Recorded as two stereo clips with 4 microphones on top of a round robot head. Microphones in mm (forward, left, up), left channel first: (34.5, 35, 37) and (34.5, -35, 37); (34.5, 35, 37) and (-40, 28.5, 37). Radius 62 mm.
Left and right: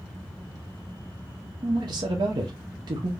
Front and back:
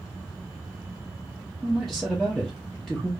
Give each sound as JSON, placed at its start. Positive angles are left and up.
{"t": 1.6, "sound": "a man speaking", "azimuth_deg": -85, "distance_m": 0.6}